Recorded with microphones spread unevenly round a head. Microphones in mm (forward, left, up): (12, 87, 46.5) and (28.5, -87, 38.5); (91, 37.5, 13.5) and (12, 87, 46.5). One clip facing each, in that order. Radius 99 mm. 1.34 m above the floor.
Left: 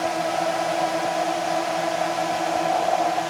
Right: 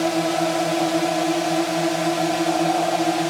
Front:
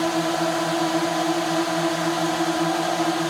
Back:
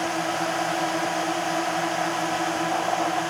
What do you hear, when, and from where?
0.0 s a drone: 80° right